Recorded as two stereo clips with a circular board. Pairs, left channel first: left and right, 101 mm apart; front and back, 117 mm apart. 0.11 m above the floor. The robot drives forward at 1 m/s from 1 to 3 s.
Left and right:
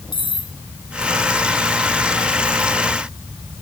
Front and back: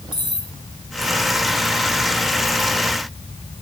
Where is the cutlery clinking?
130° left.